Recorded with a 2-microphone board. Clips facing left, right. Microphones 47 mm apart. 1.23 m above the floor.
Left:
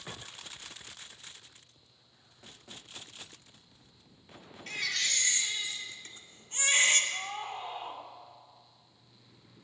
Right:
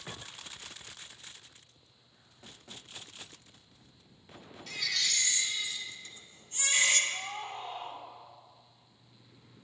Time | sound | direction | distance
4.7 | a baby crying | 40° left (ahead or behind) | 1.8 m
7.1 | a scream | 10° left (ahead or behind) | 3 m